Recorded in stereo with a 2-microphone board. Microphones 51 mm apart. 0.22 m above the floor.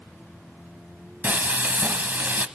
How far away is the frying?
About 0.8 m.